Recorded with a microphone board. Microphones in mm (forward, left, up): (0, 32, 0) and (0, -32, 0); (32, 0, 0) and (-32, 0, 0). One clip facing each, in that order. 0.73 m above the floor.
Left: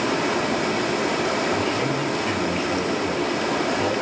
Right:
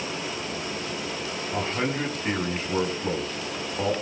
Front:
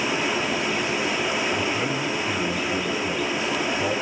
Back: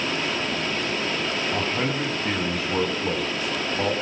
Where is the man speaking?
160° right, 6.5 m.